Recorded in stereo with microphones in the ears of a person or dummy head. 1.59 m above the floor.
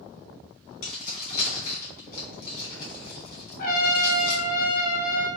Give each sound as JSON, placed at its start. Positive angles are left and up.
{"t": 0.8, "sound": "keys jangling", "side_deg": 50, "distance_m": 1.8}
{"t": 3.6, "sound": "a trumpet", "side_deg": 55, "distance_m": 0.7}